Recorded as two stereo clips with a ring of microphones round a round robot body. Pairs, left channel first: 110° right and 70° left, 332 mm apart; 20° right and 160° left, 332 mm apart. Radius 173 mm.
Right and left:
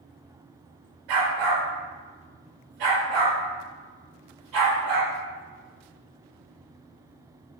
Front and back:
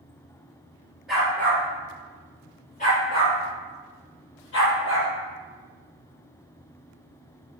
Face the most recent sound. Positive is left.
turn(degrees=30)